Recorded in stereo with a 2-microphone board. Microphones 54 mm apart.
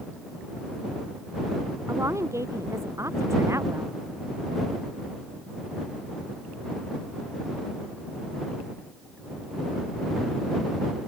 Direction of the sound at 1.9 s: 70° right (ahead or behind).